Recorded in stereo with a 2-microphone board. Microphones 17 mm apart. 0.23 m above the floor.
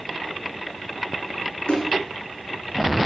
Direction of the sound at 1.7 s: 75° left (ahead or behind).